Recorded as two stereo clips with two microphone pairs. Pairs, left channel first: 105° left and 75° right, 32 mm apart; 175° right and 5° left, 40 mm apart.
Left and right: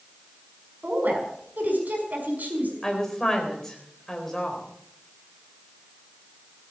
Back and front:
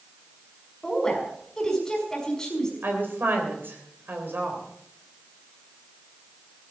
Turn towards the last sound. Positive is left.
turn(degrees=30)